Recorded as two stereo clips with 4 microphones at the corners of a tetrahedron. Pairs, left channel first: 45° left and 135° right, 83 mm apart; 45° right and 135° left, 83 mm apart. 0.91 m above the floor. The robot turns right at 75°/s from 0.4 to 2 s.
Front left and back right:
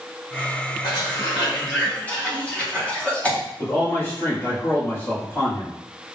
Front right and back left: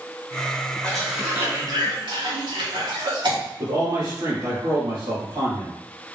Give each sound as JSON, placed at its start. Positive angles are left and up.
{"t": 0.8, "sound": "a cough", "azimuth_deg": 30, "distance_m": 1.7}
{"t": 3.6, "sound": "a man speaking", "azimuth_deg": 105, "distance_m": 2.0}